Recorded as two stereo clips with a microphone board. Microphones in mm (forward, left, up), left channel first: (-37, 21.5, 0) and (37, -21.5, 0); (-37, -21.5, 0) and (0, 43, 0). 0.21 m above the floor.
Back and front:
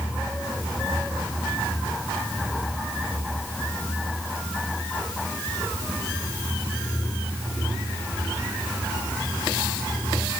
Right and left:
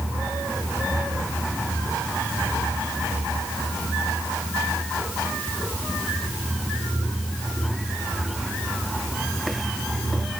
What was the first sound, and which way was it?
Only background noise.